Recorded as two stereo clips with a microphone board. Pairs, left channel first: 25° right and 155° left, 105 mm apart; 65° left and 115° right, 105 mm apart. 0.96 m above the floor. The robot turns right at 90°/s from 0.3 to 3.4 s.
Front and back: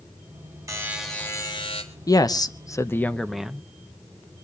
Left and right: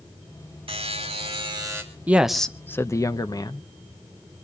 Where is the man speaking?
45° right, 0.8 m; by 3.7 s 75° left, 0.8 m.